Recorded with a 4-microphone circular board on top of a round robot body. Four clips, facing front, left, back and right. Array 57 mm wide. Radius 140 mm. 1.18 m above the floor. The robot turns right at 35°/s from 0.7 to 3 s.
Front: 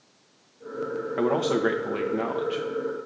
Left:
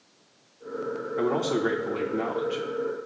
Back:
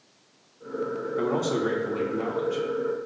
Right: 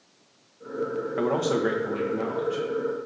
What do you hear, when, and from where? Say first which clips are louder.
1.2 s a man speaking: right 1 dB, front 3 dB; 30° right, 1.1 m; by 2.6 s 20° left, 1.1 m